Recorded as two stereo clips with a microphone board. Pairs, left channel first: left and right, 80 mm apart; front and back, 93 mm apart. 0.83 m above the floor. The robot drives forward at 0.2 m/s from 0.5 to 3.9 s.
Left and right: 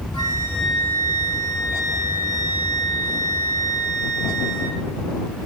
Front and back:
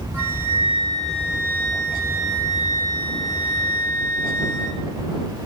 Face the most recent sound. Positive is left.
turn(degrees=145)